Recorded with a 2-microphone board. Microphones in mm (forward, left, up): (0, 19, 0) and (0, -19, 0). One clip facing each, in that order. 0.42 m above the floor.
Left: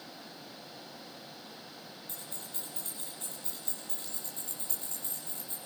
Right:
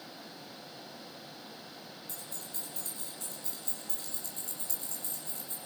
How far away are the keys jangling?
About 8 m.